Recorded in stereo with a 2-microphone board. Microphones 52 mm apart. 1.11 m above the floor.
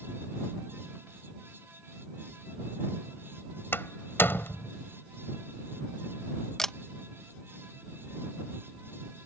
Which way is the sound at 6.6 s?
10° left (ahead or behind).